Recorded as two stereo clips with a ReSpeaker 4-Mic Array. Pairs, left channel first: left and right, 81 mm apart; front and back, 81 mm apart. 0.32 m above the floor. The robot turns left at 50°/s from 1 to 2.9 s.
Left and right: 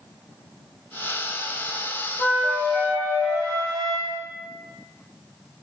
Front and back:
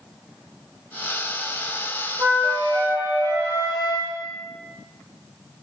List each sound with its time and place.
2.2 s a flute: 170° right, 1.7 m; by 4.1 s 155° left, 1.7 m